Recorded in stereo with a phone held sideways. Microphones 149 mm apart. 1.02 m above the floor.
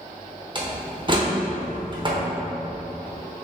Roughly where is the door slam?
Right.